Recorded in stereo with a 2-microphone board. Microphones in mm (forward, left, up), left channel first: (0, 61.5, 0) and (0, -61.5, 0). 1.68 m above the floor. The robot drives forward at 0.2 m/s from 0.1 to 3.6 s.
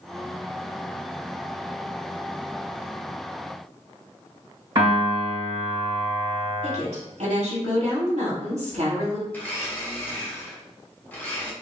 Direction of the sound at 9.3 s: 15° left (ahead or behind).